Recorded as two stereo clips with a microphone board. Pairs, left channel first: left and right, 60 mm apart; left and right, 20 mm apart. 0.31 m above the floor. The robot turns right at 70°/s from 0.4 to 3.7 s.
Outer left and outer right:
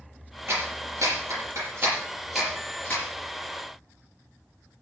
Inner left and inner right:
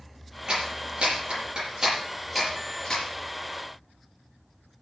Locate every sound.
0.5 s a clap: 50° right (ahead or behind), 7 m; by 3.0 s 45° left (ahead or behind), 7 m